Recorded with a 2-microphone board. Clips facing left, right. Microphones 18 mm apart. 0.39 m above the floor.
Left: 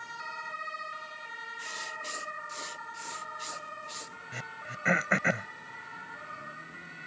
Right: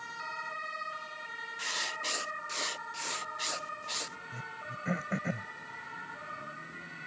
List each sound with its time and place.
1.6 s writing: 25° right (ahead or behind)
4.3 s throat clearing: 55° left (ahead or behind)